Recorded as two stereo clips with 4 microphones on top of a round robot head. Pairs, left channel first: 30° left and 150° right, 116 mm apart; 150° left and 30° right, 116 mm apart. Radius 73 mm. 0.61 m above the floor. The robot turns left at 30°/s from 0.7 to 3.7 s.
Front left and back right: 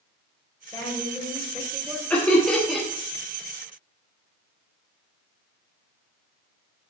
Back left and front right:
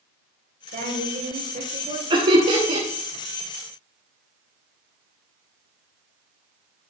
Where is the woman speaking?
35° right, 3 m; by 2.0 s 70° right, 3 m.